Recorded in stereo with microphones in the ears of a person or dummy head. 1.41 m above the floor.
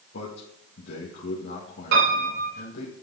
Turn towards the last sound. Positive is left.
turn(degrees=-60)  # may be behind; listen again after turning